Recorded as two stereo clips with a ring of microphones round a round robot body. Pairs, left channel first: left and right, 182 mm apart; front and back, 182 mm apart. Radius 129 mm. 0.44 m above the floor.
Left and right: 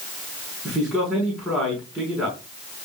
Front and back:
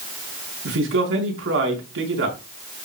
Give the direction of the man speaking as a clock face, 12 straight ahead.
6 o'clock.